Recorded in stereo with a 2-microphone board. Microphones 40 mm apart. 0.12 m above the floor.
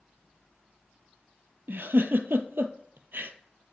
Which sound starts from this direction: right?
A giggle, at 1.7 s.